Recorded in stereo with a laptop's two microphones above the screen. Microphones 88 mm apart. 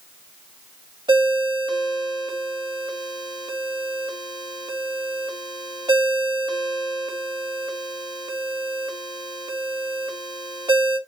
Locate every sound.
1.1 s a ringtone: 70° right (ahead or behind), 1.2 m